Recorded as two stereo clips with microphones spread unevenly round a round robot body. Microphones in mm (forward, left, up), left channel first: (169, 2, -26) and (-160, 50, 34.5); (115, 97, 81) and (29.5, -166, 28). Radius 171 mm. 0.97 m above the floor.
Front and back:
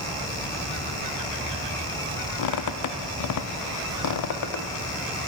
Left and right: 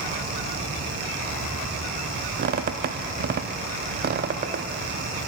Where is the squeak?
45° right, 0.5 m.